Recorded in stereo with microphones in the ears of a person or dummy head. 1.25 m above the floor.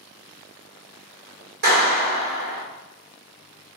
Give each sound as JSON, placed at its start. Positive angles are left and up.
{"t": 1.6, "sound": "a clap", "side_deg": -55, "distance_m": 1.4}